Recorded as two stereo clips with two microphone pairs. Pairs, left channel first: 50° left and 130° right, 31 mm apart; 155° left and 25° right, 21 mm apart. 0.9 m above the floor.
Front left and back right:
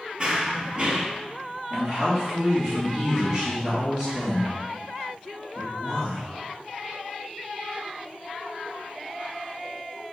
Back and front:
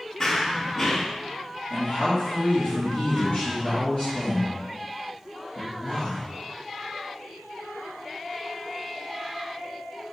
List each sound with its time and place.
0.2 s running footsteps: 155° right, 1.0 m
1.7 s a man speaking: 175° left, 2 m